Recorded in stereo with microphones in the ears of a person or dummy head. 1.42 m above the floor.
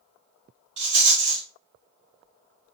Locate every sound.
0.8 s a rattle: 35° right (ahead or behind), 0.8 m